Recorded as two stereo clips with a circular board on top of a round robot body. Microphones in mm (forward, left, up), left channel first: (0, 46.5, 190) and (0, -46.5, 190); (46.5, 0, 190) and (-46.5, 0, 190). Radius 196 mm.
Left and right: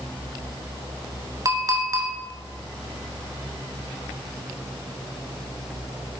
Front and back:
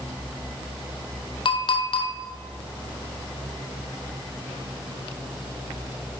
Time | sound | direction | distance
1.4 | a clink | 35° right | 0.8 m